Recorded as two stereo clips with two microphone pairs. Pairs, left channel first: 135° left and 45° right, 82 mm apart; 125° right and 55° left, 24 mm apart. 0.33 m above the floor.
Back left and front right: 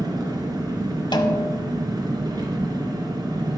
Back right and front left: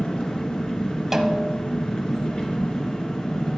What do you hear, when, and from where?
0.0 s an engine running: 80° right, 2.5 m
1.1 s a snare drum: 125° left, 0.9 m